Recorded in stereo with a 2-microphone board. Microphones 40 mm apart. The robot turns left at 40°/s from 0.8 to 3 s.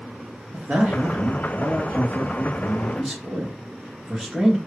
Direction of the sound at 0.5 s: 70° right.